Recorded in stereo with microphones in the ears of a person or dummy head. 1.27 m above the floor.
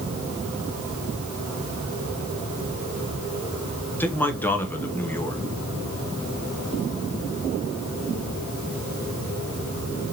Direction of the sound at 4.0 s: 10° left (ahead or behind).